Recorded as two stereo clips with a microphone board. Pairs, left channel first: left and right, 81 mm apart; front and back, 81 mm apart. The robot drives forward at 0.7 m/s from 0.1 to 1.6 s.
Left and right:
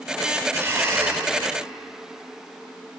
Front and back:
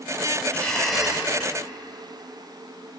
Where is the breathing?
60° right, 1.0 m; by 1.3 s 115° right, 1.0 m.